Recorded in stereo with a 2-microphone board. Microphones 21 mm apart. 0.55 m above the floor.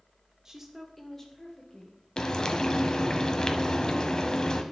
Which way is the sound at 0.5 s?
25° right (ahead or behind).